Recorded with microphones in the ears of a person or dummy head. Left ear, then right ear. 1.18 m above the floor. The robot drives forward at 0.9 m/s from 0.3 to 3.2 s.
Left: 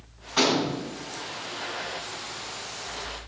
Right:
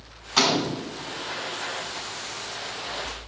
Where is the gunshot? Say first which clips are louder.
Right 2 dB; 30° right (ahead or behind), 3 m; by 0.8 s 35° right (ahead or behind), 3 m.